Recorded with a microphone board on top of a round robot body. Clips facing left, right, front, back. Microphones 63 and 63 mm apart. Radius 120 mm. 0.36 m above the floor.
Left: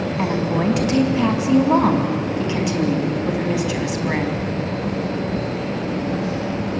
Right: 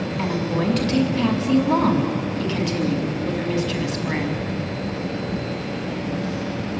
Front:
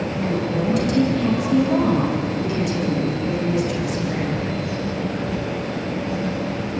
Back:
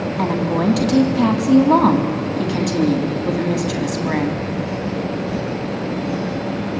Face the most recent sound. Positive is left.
turn(degrees=165)